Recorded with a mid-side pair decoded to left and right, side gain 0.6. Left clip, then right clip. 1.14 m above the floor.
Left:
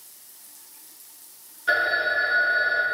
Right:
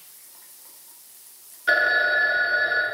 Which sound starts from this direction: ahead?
A phone ringing, at 1.7 s.